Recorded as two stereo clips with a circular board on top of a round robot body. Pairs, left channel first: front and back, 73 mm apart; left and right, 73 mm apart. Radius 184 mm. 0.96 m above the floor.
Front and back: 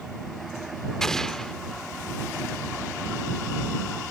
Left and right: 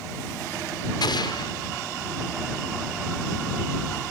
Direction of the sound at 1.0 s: 80° left.